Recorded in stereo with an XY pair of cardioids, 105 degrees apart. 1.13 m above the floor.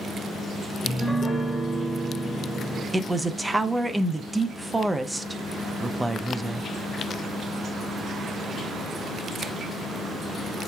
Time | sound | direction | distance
0.8 | a piano | 10° left | 0.9 m
2.9 | a man speaking | 10° right | 0.6 m